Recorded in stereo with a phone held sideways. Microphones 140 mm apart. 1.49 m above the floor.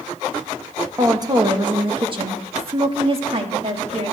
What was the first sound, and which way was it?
A woman speaking, 25° right (ahead or behind).